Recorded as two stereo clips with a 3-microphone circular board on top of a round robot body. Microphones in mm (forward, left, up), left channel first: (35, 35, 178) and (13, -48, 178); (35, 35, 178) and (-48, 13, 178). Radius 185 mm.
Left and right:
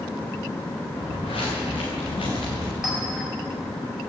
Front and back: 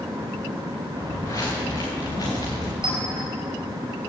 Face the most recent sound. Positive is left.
turn(degrees=165)